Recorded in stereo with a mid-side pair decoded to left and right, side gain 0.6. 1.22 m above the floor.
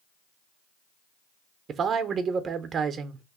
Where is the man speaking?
40° right, 0.6 m.